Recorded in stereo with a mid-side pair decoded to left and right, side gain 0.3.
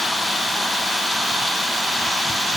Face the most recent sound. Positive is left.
No sound to turn to.